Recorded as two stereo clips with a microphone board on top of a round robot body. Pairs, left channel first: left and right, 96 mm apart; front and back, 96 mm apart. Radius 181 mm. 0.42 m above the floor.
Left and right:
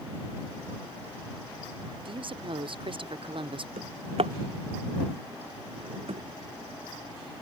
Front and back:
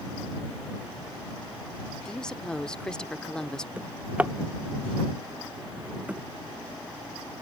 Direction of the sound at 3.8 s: 105° right.